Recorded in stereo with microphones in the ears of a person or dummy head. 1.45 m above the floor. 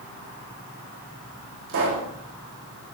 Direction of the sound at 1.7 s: 70° right (ahead or behind).